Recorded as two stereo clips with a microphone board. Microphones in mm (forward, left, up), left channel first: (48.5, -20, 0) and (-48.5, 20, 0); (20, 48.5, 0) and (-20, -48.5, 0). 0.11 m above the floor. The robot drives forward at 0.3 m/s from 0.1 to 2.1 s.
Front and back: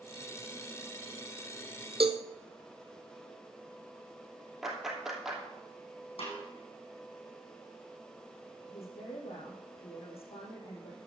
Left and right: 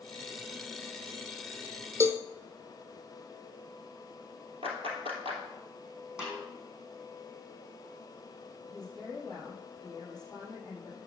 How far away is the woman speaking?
About 5 m.